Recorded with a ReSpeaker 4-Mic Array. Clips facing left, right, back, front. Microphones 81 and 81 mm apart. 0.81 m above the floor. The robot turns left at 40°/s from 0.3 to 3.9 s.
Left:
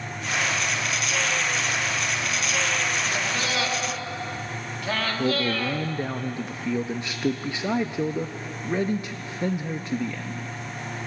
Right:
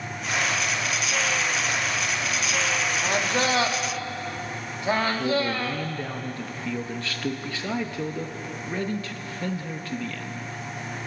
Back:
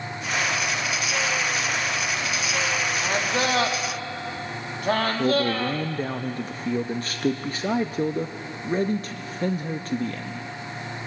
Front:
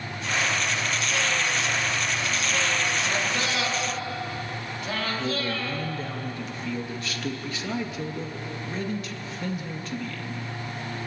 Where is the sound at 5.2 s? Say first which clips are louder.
Even, back 7 dB; 155° left, 0.8 m.